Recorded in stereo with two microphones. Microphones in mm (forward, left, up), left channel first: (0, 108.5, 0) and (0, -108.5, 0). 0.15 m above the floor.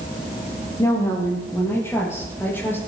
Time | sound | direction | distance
0.8 | a woman speaking | 15° left (ahead or behind) | 4.5 m